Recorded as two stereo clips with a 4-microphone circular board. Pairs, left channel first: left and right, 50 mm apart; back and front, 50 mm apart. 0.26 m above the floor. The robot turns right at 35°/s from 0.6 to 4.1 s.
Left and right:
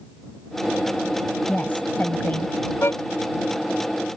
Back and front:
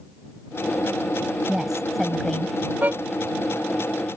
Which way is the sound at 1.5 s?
70° left.